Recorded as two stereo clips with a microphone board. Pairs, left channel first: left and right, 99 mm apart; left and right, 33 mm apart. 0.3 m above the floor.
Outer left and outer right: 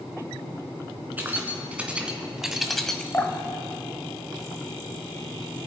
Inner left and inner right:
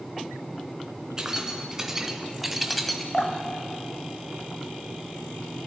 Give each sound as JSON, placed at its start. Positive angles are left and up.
{"t": 1.2, "sound": "keys jangling", "side_deg": -20, "distance_m": 2.5}
{"t": 3.1, "sound": "dripping", "side_deg": 20, "distance_m": 1.5}